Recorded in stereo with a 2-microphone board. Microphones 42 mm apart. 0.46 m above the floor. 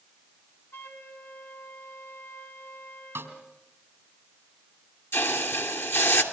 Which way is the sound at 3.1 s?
65° right (ahead or behind).